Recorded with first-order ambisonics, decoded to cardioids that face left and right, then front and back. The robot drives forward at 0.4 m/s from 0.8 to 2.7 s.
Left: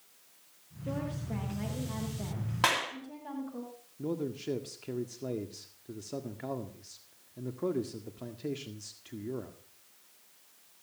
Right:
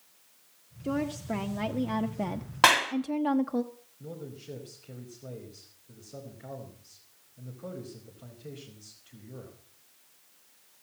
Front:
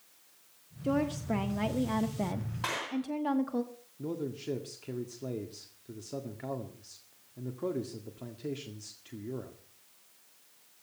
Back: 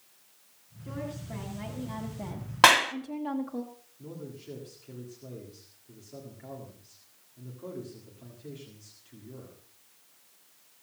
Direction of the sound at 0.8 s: 30° right.